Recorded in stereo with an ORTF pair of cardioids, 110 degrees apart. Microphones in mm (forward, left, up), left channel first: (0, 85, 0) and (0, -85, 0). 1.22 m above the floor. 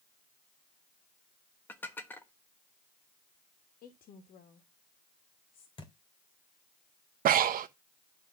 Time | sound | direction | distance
1.7 | dishes clattering | 10° left | 1.1 m
3.8 | a woman speaking | 60° left | 2.0 m
5.8 | a thud | 30° left | 2 m
7.2 | breathing | 55° right | 1.0 m